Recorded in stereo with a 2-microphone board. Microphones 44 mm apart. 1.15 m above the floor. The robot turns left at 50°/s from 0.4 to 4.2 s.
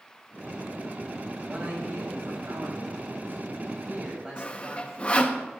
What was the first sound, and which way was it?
A man speaking, 20° right.